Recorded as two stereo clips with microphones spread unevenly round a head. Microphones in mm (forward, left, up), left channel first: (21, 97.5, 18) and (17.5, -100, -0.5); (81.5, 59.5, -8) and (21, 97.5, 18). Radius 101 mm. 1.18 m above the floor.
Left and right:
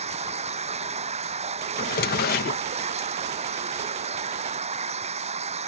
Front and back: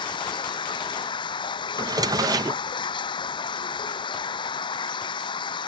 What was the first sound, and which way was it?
Running water, 30° right.